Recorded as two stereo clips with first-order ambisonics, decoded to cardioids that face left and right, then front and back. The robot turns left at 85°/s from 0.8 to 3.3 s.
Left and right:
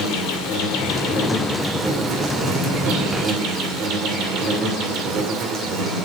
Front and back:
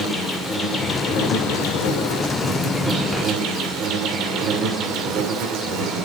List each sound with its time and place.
0.0 s an insect: 80° left, 2 m; by 6.0 s 135° right, 2 m